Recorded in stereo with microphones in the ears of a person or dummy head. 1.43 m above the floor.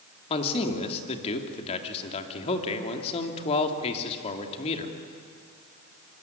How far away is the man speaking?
About 3 m.